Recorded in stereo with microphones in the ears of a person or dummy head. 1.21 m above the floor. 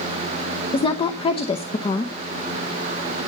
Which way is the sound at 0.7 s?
25° left (ahead or behind).